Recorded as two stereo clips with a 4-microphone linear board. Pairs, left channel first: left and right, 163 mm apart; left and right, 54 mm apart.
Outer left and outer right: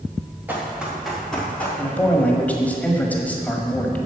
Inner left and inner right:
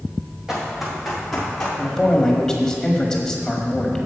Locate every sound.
0.5 s running footsteps: 10° right (ahead or behind), 4 m; by 1.7 s 10° left (ahead or behind), 4 m
1.8 s a man speaking: 10° left (ahead or behind), 1.4 m